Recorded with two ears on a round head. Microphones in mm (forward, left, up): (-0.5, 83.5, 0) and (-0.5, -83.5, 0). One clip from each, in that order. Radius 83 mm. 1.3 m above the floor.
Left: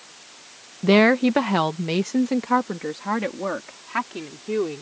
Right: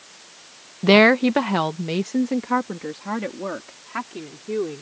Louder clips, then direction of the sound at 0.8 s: Right 3 dB; 30° right (ahead or behind).